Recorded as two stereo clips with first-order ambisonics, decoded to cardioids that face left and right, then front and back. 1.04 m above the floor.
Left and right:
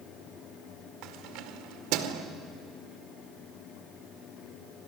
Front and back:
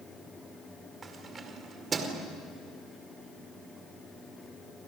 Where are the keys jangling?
110° right, 2 m.